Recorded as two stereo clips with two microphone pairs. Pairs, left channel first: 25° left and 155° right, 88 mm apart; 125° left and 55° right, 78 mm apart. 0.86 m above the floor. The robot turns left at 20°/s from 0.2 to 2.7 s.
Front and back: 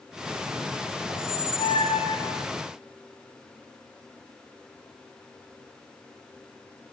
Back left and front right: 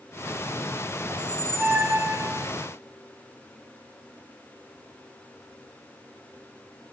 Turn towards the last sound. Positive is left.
turn(degrees=-15)